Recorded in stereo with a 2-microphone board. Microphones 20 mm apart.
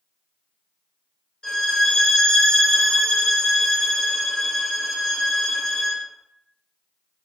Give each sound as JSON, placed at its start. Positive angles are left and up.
{"t": 1.4, "sound": "a violin", "side_deg": 35, "distance_m": 1.6}